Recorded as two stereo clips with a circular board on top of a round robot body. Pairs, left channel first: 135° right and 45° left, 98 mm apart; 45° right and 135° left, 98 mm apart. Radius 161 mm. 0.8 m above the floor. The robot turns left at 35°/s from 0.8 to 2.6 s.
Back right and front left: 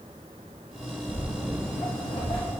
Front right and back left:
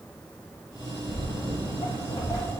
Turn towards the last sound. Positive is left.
turn(degrees=-115)